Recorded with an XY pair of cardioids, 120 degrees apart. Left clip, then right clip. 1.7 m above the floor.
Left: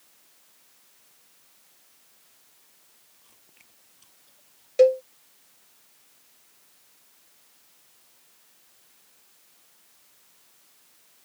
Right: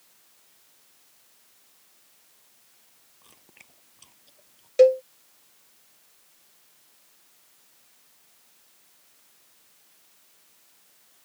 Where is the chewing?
40° right.